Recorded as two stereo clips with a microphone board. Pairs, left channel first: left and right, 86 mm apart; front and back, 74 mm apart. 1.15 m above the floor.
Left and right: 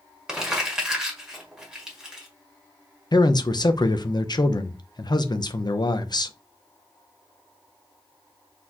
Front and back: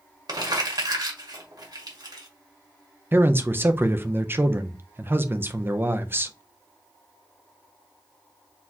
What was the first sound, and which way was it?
Crumpling, 170° right.